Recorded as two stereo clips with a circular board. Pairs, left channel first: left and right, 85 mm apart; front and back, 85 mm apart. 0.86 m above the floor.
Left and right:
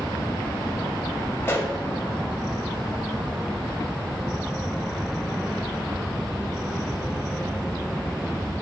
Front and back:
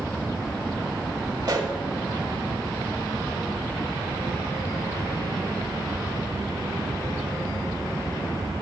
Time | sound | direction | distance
1.4 | a pop | 150° left | 1.2 m